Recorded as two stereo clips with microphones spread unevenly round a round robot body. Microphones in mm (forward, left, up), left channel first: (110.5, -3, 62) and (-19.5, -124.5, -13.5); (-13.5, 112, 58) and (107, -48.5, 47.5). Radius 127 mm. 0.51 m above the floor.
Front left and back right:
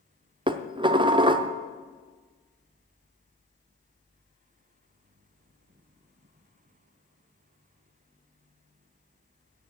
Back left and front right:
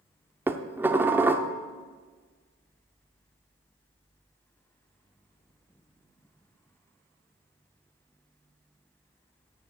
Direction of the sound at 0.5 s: 125° right.